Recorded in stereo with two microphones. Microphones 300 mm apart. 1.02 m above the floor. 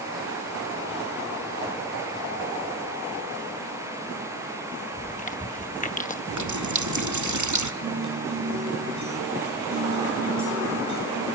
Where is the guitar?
70° right (ahead or behind), 10 m.